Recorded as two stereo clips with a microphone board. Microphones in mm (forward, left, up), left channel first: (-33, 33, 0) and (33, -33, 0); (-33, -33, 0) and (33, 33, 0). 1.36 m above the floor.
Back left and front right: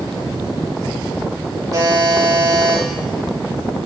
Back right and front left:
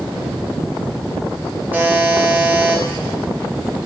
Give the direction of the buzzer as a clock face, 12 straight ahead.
1 o'clock.